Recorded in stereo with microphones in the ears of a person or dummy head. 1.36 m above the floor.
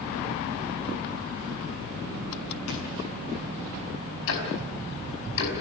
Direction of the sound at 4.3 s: 70° left (ahead or behind).